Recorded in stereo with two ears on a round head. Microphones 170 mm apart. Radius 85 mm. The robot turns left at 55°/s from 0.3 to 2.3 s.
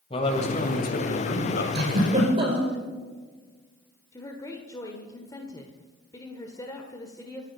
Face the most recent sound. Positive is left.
turn(degrees=20)  # may be behind; listen again after turning